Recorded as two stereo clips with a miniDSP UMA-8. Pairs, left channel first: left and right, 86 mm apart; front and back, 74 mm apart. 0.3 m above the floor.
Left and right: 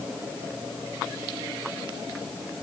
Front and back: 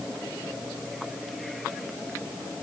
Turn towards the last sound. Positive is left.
No sound to turn to.